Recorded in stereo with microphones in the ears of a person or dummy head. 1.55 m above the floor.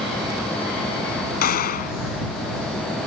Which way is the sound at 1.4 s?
45° left (ahead or behind).